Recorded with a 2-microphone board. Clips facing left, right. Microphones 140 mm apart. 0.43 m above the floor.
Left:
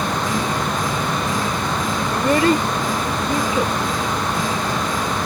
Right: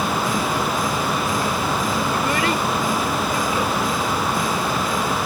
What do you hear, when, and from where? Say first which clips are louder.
2.1 s a child speaking: left 5 dB; 40° left (ahead or behind); by 3.8 s 25° left (ahead or behind)